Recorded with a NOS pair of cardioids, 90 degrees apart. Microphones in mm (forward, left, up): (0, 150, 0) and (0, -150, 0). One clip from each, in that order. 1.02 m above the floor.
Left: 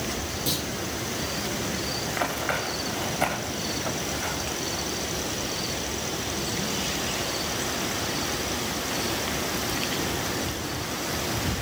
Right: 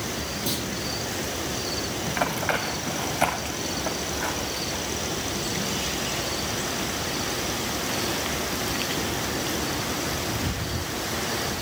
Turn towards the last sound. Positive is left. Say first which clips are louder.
# right 3 dB
turn(degrees=-15)